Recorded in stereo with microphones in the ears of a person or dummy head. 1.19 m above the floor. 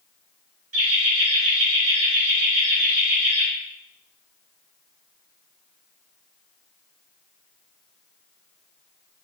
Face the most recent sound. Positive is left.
turn(degrees=-35)  # may be behind; listen again after turning